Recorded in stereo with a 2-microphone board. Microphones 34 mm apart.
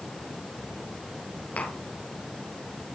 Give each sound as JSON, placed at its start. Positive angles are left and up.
{"t": 1.6, "sound": "tapping", "side_deg": 50, "distance_m": 4.5}